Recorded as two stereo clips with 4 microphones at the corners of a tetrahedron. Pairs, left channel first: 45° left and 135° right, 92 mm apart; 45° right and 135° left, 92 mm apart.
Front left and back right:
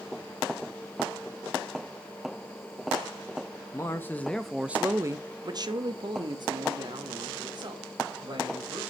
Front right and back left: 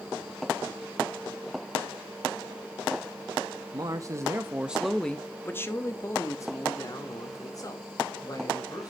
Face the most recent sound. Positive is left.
turn(degrees=-95)